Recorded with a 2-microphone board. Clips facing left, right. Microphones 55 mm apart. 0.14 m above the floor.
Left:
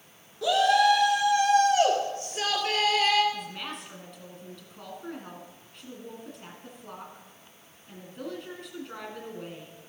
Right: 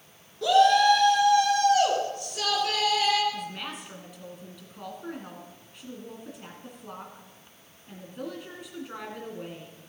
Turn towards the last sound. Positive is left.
turn(degrees=-5)  # may be behind; listen again after turning